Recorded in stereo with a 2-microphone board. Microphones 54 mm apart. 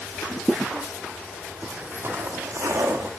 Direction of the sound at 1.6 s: 25° right (ahead or behind).